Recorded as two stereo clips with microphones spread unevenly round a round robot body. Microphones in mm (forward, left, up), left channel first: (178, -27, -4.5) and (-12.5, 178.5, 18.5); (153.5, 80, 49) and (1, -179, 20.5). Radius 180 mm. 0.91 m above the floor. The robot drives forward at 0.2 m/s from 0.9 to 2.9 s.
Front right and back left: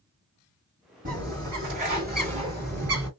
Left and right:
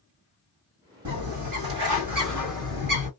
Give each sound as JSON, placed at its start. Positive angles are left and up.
{"t": 1.1, "sound": "a bird", "azimuth_deg": -165, "distance_m": 1.4}